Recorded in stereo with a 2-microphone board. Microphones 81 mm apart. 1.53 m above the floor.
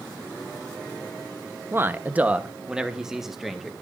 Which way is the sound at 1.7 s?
30° right (ahead or behind).